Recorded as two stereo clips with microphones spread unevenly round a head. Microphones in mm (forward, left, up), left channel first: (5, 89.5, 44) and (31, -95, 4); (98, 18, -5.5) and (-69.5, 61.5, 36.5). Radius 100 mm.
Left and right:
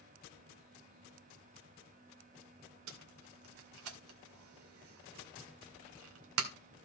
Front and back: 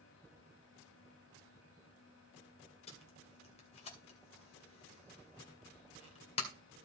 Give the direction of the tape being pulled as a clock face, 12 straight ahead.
3 o'clock.